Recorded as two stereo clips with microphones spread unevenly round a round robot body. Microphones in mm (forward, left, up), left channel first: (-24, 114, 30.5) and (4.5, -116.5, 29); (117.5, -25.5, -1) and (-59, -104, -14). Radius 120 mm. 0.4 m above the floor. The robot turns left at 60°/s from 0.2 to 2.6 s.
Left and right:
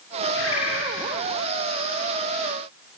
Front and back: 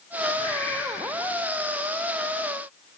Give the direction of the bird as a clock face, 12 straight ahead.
7 o'clock.